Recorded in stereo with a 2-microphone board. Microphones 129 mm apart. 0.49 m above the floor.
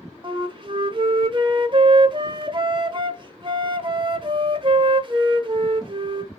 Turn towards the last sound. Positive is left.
turn(degrees=-40)  # may be behind; listen again after turning